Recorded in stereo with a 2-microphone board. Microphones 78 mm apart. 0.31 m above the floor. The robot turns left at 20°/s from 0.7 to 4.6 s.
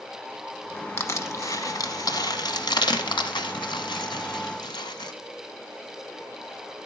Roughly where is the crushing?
Left.